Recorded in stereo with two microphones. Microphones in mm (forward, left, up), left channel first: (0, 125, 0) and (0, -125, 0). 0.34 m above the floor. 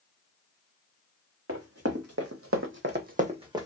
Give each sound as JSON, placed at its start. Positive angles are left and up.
{"t": 1.5, "sound": "running footsteps", "side_deg": -65, "distance_m": 1.1}